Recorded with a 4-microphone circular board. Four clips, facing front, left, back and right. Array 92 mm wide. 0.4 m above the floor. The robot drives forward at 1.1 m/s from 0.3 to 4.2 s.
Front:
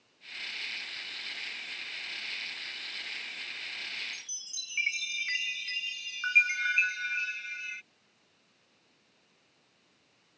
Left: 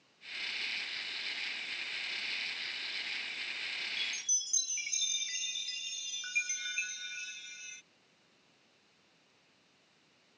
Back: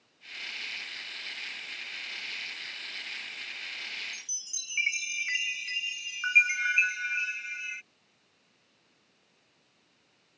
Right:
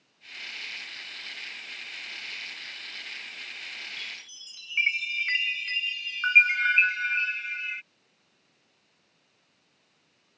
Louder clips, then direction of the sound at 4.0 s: Right 1 dB, even; 90° right.